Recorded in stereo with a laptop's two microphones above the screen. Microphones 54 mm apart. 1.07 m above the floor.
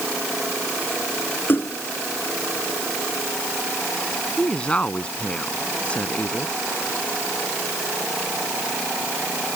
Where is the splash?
35° left (ahead or behind).